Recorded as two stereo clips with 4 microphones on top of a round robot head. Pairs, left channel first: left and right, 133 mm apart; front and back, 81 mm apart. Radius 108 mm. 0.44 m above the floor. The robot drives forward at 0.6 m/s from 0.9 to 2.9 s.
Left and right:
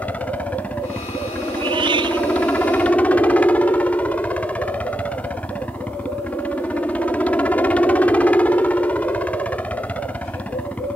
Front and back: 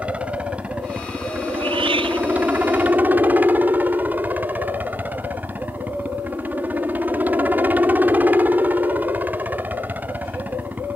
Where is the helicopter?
145° left; by 11.0 s 150° left.